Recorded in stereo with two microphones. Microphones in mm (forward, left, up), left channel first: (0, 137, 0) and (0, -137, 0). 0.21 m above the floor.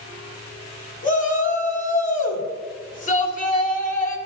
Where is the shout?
30° left (ahead or behind), 1.4 m.